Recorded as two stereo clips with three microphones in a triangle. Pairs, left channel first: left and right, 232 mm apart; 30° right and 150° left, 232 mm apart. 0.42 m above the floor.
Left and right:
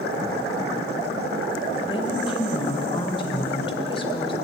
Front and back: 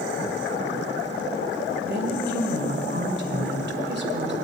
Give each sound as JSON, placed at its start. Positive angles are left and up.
{"t": 1.8, "sound": "a woman speaking", "azimuth_deg": 150, "distance_m": 2.0}